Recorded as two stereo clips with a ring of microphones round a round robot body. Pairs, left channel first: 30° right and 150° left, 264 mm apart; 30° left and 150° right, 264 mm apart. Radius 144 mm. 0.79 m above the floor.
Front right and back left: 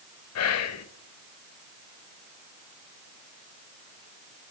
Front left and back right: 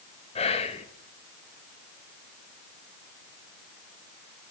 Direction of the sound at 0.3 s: 35° right.